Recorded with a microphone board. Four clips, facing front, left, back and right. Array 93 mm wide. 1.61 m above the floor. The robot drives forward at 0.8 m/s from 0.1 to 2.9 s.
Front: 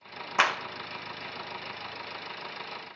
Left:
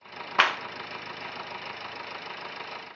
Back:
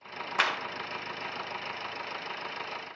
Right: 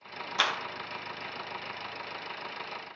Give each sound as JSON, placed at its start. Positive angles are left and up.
{"t": 0.4, "sound": "a clap", "azimuth_deg": 65, "distance_m": 0.9}